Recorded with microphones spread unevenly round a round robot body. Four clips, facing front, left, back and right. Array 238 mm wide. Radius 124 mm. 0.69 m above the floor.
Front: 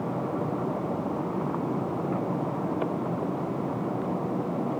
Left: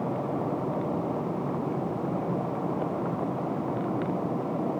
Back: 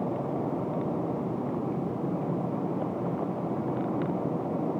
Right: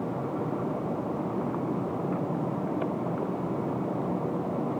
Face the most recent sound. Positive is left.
No sound to turn to.